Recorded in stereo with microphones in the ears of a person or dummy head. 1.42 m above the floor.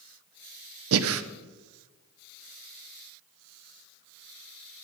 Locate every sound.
0.9 s breathing: 75° right (ahead or behind), 0.9 m